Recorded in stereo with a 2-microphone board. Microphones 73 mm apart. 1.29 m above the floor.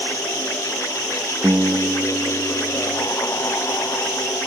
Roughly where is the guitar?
Right.